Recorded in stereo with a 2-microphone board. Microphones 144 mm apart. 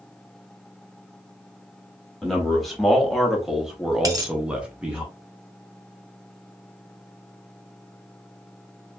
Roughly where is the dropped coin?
Right.